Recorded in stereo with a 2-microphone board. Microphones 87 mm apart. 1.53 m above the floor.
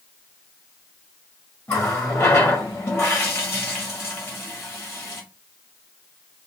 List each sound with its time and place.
1.7 s a running tap: 30° left (ahead or behind), 1.8 m